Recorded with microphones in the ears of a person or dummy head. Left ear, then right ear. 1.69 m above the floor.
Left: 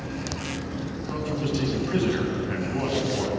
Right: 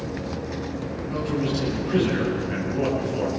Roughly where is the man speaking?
Left.